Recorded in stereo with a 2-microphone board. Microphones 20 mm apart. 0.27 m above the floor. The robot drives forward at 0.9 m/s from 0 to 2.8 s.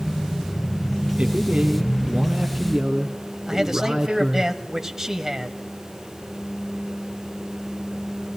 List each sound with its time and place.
1.2 s a man speaking: 60° right (ahead or behind), 2 m; by 4.5 s 50° right (ahead or behind), 2.5 m
3.5 s a man speaking: 20° right (ahead or behind), 1.7 m